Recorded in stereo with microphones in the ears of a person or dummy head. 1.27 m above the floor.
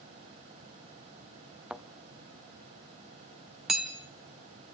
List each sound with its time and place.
1.7 s a thud: 5° right (ahead or behind), 0.7 m
3.7 s hammering: 5° right (ahead or behind), 0.9 m